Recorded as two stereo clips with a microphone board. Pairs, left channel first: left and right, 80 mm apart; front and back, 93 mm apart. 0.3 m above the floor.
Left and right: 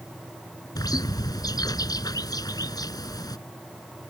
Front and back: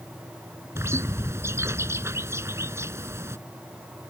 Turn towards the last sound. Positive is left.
turn(degrees=120)